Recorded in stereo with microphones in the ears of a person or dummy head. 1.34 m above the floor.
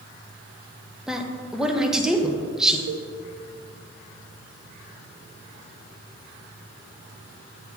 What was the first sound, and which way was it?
A woman speaking, 5° right (ahead or behind).